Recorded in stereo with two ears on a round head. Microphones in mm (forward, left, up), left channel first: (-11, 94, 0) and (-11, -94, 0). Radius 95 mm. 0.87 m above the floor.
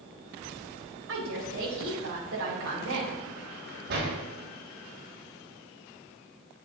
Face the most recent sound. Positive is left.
turn(degrees=-50)  # may be behind; listen again after turning